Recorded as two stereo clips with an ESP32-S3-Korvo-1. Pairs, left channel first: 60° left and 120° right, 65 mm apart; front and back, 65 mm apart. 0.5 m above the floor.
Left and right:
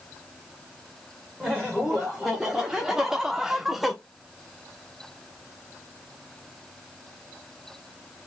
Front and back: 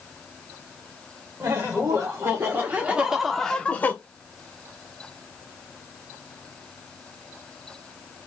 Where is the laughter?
155° left, 1.4 m; by 4.0 s 35° right, 0.8 m.